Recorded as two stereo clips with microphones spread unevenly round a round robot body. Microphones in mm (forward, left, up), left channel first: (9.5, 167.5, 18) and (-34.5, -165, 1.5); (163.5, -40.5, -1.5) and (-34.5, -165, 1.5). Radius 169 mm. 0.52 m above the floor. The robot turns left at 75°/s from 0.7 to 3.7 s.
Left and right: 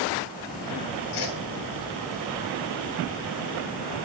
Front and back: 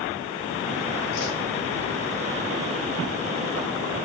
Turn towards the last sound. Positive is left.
turn(degrees=-120)